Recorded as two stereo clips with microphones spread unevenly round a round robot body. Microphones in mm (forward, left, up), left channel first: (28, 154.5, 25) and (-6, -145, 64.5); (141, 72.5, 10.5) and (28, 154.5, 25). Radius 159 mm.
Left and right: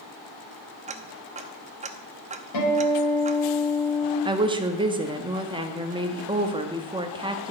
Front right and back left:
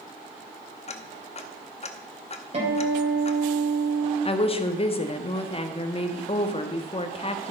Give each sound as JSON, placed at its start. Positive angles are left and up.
{"t": 0.9, "sound": "ticking", "azimuth_deg": -25, "distance_m": 0.9}
{"t": 2.5, "sound": "a guitar", "azimuth_deg": 105, "distance_m": 4.0}
{"t": 4.2, "sound": "a woman speaking", "azimuth_deg": -20, "distance_m": 1.2}